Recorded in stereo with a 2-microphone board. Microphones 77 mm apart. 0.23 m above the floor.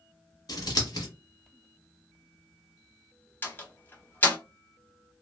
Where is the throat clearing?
No throat clearing in this recording.